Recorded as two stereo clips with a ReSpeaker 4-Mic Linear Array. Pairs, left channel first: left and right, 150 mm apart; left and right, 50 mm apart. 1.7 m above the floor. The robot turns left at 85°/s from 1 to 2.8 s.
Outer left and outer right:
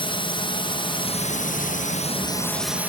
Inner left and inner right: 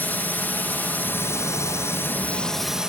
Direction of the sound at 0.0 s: 140° left.